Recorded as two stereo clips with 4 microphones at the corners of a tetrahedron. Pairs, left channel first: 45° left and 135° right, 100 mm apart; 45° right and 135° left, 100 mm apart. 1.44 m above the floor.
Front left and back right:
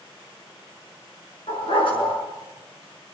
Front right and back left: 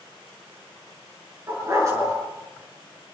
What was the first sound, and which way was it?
A dog barking, 75° left.